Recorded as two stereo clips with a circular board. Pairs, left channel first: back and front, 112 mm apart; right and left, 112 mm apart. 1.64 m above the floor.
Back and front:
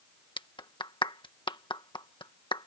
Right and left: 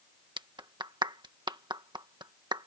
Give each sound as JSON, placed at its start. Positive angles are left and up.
{"t": 0.4, "sound": "a clap", "azimuth_deg": 135}